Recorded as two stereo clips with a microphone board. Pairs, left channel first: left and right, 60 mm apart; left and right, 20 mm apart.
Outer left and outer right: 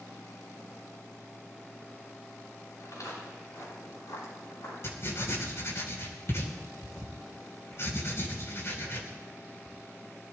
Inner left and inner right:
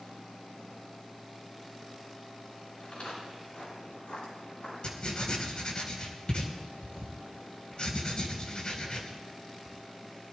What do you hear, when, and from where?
2.8 s footsteps: 60° left (ahead or behind), 9 m; by 5.8 s 40° left (ahead or behind), 6 m
4.8 s writing: 50° left (ahead or behind), 2.5 m